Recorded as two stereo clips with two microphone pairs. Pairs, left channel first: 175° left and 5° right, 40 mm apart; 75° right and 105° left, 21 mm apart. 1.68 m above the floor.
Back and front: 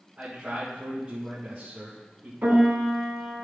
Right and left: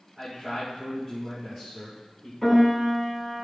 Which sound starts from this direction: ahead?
A piano, at 2.4 s.